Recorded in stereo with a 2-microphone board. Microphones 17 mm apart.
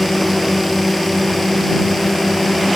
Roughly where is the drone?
Left.